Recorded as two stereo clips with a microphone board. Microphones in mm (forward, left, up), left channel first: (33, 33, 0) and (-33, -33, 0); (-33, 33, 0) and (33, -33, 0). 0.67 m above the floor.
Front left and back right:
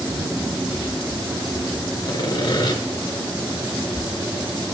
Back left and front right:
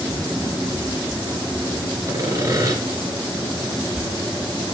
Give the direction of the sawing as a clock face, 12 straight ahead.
12 o'clock.